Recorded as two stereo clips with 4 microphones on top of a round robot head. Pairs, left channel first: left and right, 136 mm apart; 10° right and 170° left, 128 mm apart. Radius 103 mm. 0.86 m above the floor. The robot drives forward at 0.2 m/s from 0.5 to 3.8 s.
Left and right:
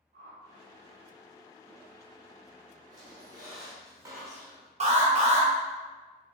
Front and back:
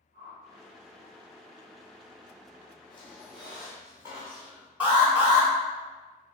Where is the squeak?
75° right, 0.5 m; by 4.7 s 125° right, 0.5 m.